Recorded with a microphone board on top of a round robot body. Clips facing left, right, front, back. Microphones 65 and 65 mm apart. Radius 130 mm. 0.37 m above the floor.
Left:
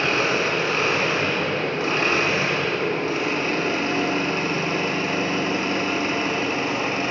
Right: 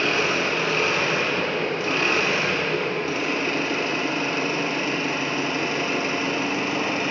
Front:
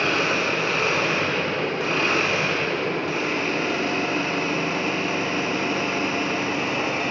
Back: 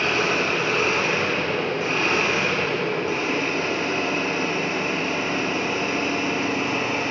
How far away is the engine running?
About 1.8 m.